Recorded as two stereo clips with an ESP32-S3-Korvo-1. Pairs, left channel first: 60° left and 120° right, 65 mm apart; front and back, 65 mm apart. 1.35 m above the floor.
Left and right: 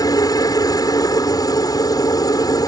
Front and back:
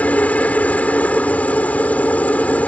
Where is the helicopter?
65° left.